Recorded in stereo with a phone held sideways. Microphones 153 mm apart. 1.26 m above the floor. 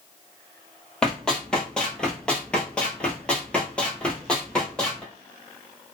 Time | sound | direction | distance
1.0 | running footsteps | 5° left (ahead or behind) | 1.5 m